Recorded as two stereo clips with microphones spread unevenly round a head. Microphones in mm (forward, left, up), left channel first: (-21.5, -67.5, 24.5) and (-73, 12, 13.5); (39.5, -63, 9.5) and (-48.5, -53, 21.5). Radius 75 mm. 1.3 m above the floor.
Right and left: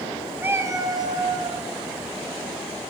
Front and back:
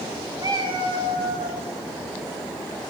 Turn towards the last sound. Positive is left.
turn(degrees=160)